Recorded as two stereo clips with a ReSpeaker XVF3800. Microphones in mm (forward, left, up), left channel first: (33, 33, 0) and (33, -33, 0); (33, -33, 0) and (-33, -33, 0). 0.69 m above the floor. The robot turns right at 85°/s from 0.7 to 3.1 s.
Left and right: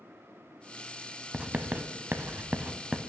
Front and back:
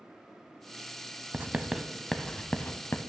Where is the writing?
145° right, 0.6 m; by 3.1 s 5° left, 0.6 m.